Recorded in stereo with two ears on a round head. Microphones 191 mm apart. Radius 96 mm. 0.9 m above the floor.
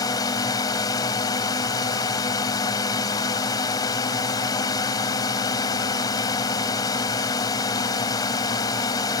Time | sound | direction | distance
0.0 | a drone | 15° left (ahead or behind) | ?